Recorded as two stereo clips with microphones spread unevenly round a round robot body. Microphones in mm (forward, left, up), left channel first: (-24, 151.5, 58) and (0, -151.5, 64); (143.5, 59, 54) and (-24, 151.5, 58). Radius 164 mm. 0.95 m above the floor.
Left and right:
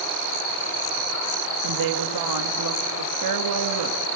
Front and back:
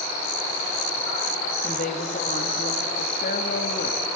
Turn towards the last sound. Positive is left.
turn(degrees=-80)